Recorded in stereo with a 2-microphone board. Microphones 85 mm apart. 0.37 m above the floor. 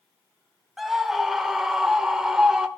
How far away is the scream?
About 1.2 m.